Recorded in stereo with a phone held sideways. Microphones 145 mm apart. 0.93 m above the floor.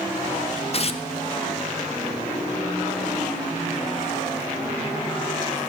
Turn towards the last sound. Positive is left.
turn(degrees=45)  # may be behind; listen again after turning